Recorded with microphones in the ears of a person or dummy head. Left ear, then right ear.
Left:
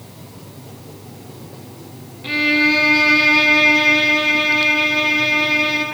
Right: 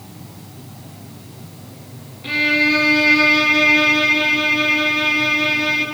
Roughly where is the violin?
Centre.